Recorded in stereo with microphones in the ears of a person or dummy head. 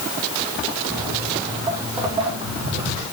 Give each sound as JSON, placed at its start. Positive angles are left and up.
{"t": 0.9, "sound": "footsteps", "side_deg": -10, "distance_m": 3.0}